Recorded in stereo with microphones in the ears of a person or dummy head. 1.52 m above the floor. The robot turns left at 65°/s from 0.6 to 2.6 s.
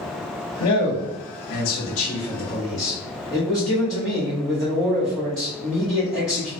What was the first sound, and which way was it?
A man speaking, 130° left.